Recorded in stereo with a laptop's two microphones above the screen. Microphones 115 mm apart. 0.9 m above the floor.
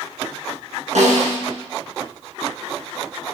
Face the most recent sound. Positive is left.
turn(degrees=-80)